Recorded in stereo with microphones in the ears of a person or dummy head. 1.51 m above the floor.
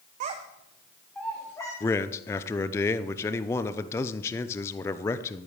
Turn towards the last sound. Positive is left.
turn(degrees=15)  # may be behind; listen again after turning